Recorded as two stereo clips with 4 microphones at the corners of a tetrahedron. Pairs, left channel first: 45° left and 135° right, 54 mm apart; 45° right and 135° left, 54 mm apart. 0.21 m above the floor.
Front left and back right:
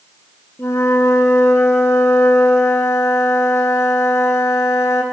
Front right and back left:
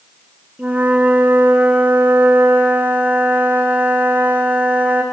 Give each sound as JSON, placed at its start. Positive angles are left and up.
{"t": 0.6, "sound": "a flute", "azimuth_deg": 75, "distance_m": 1.9}